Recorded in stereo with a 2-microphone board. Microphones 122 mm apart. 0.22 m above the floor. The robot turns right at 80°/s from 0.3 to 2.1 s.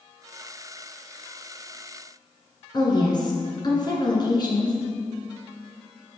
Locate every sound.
2.7 s a woman speaking: 35° left (ahead or behind), 3 m